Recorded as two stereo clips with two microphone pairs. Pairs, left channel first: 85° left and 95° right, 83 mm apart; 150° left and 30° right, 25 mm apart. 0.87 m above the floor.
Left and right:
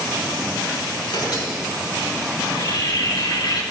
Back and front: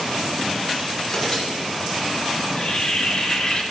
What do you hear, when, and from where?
1.0 s tearing paper: 75° left, 6 m
2.4 s a bird: 100° left, 4 m